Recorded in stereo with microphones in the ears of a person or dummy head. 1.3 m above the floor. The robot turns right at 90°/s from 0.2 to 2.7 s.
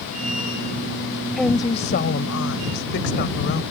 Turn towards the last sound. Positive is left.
turn(degrees=120)